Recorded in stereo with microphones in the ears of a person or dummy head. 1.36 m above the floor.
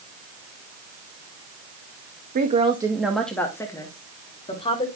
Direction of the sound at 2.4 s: 45° right (ahead or behind).